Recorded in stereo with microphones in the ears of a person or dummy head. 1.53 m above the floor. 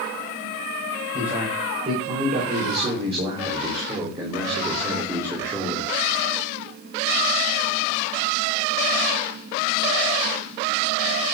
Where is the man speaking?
35° right (ahead or behind), 6 m; by 5.9 s 10° right (ahead or behind), 3.5 m.